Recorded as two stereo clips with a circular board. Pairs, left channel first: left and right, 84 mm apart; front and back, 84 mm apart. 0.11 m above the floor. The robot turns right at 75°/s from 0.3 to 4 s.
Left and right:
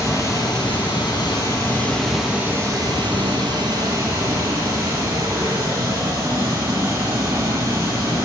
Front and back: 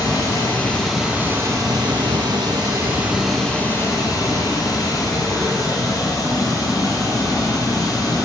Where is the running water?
45° left, 3 m; by 8.2 s 40° right, 3 m.